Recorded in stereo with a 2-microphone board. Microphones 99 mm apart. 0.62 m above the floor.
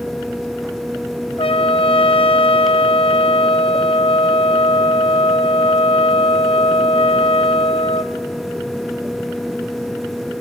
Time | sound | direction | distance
1.4 | a trumpet | 65° left (ahead or behind) | 0.7 m